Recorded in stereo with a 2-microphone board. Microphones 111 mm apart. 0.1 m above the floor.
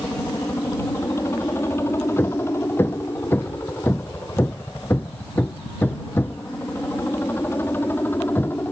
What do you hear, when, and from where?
0.0 s a helicopter: 25° left (ahead or behind); by 8.7 s 15° left (ahead or behind)
2.2 s hammering: 20° left (ahead or behind)